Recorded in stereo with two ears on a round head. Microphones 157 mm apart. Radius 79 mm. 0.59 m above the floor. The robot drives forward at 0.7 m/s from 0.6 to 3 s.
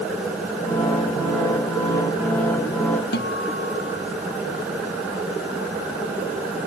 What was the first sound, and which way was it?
A guitar, 60° left (ahead or behind).